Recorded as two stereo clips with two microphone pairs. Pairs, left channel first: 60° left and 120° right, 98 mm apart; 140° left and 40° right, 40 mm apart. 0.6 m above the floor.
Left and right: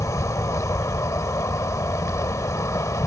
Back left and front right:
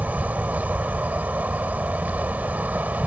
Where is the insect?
5° left.